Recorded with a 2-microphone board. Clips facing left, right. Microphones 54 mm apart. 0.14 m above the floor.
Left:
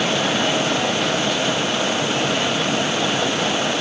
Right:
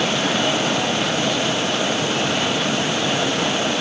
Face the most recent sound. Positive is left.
No sound to turn to.